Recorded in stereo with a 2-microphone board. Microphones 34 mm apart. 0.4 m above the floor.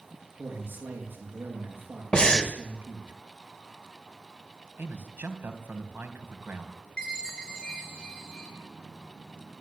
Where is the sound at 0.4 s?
75° right (ahead or behind), 7.5 m.